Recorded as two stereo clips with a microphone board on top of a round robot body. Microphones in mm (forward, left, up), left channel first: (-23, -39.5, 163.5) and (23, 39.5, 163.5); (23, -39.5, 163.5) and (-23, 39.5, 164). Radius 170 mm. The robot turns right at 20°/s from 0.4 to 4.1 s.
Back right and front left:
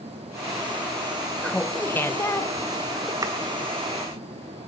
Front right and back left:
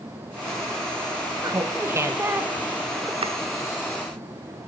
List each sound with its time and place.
1.4 s laughter: 165° left, 1.0 m; by 3.1 s 160° right, 1.0 m
3.2 s chopping: 115° left, 1.2 m